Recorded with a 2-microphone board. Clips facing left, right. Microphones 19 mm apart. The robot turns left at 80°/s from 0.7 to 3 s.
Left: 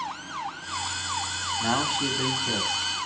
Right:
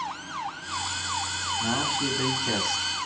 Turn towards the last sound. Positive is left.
turn(degrees=-70)